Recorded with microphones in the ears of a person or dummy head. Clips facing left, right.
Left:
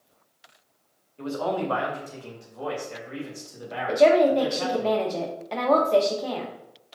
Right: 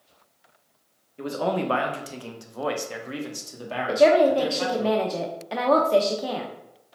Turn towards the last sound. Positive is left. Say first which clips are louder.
# even
turn(degrees=-5)  # may be behind; listen again after turning